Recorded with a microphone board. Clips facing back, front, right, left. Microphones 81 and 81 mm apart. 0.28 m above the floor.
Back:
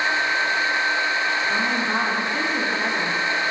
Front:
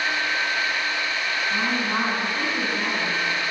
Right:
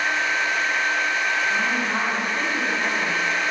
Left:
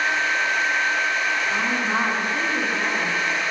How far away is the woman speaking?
About 3.5 m.